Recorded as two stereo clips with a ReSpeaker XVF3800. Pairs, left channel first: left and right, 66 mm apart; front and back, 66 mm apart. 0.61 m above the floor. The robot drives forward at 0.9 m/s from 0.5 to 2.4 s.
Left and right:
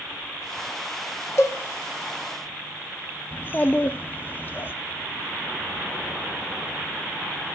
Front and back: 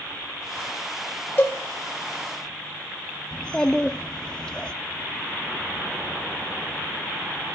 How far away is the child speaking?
About 0.6 m.